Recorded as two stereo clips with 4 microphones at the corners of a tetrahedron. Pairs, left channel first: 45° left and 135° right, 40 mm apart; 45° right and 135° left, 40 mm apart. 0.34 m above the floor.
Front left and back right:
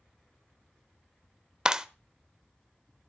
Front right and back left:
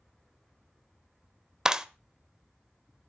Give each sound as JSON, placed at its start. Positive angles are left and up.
{"t": 1.6, "sound": "a clap", "azimuth_deg": 180, "distance_m": 0.9}